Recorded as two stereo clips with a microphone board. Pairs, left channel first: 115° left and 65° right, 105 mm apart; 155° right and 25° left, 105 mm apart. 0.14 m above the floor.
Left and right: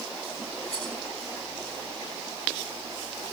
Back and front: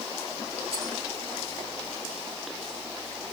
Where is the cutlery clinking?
140° left, 8 m.